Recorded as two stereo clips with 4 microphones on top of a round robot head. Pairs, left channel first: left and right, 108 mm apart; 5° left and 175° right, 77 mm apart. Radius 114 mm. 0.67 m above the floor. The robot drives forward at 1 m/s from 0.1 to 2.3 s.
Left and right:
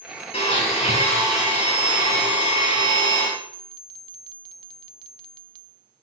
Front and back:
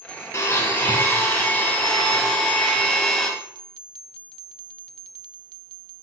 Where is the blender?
55° left, 4 m; by 3.3 s 90° left, 3 m.